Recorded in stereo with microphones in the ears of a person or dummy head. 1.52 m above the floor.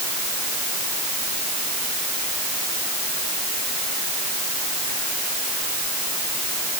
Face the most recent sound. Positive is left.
No sound to turn to.